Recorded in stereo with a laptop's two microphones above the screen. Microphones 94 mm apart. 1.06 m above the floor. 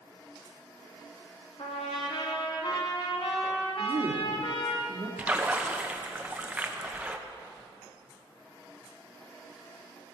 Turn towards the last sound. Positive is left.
turn(degrees=-15)  # may be behind; listen again after turning